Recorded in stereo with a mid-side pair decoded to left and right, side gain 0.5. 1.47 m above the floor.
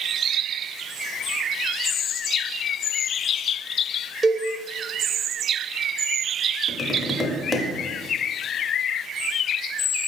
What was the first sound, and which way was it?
A cowbell, 35° right.